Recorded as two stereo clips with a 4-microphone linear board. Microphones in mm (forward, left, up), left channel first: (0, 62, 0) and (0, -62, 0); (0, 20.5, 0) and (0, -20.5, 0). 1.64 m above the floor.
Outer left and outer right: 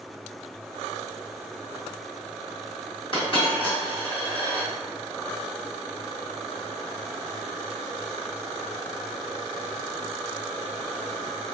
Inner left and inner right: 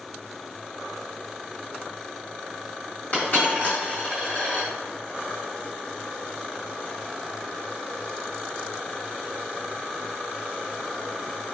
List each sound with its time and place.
3.1 s a dropped coin: 40° left (ahead or behind), 1.5 m